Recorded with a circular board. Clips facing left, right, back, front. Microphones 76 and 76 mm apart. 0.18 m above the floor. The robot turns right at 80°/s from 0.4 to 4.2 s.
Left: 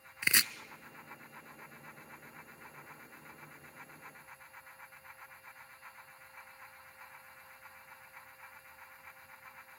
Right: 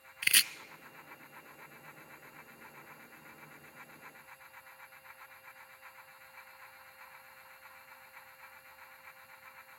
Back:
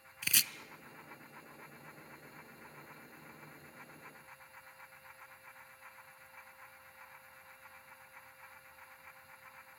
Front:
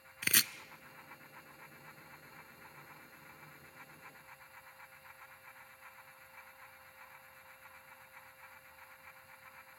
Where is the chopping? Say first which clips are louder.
Left 1 dB, front 4 dB; 25° left, 0.6 m; by 0.5 s 30° left, 0.6 m.